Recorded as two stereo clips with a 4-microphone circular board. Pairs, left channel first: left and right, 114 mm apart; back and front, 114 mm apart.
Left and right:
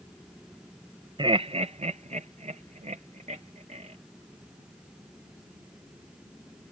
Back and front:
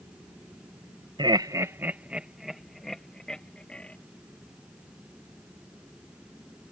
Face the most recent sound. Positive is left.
turn(degrees=-100)